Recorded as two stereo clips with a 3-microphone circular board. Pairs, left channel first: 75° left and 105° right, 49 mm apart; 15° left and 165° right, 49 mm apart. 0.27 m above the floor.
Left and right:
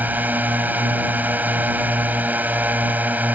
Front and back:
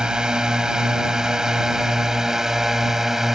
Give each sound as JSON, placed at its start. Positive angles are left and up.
{"t": 0.0, "sound": "a drone", "azimuth_deg": -100}